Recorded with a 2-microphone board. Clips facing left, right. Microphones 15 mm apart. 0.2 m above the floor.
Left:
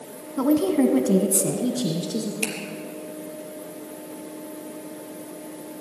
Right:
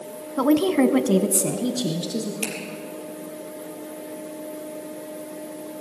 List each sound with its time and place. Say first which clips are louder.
0.4 s a woman speaking: right 1 dB; 30° right (ahead or behind), 1.4 m; by 2.3 s 20° right (ahead or behind), 3 m
2.4 s a finger snap: left 2 dB; 30° left (ahead or behind), 4 m